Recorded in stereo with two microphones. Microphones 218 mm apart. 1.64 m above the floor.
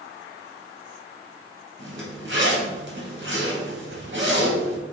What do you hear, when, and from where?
1.8 s a zipper: 55° right (ahead or behind), 2.5 m